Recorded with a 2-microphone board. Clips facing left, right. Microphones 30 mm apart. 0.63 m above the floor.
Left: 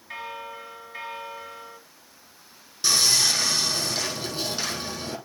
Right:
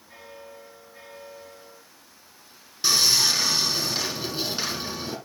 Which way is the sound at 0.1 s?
85° left.